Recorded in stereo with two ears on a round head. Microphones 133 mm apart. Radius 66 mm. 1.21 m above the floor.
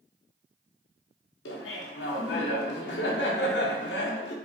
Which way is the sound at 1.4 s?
80° left.